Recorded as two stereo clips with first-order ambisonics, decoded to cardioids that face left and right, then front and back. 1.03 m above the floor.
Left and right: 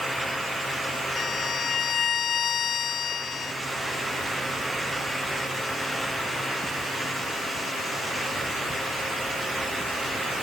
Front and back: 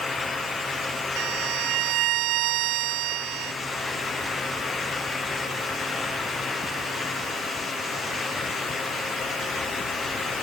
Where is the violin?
155° left.